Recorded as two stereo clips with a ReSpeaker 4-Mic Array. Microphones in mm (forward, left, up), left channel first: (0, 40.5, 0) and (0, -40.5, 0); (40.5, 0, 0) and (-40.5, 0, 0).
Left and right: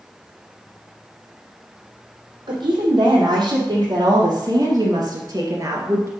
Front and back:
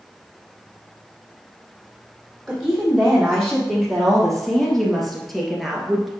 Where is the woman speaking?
90° right, 3.5 m.